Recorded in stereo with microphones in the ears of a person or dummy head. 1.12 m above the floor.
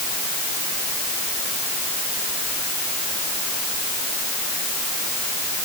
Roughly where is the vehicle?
I don't hear a vehicle.